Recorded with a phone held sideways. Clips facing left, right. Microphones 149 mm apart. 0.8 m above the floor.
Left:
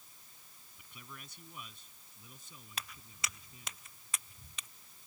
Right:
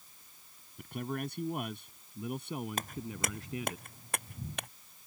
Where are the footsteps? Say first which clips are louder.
Right 10 dB; 45° right (ahead or behind); by 4.7 s 60° right (ahead or behind).